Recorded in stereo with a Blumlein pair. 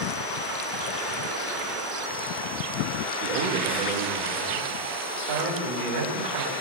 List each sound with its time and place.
3.2 s a man speaking: 40° right, 3.5 m; by 6.5 s 55° right, 7 m